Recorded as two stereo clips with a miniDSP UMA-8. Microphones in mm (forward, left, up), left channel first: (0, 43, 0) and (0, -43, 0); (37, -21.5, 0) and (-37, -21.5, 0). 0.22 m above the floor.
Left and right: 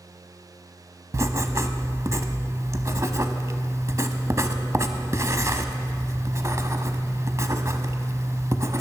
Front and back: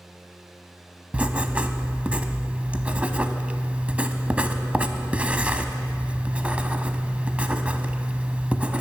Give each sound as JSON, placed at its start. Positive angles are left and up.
{"t": 1.1, "sound": "writing", "azimuth_deg": -115, "distance_m": 0.8}